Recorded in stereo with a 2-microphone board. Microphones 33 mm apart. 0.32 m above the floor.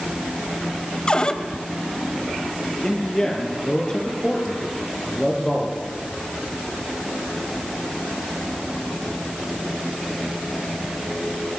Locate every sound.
1.1 s a cupboard door: 25° left (ahead or behind), 1.4 m
2.8 s a man speaking: 15° left (ahead or behind), 6.5 m